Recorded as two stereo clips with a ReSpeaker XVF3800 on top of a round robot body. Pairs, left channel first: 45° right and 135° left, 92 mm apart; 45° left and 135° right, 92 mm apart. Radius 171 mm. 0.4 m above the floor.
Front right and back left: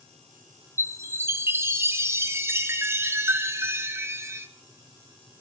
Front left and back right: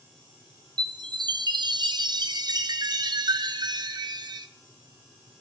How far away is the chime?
About 1.1 m.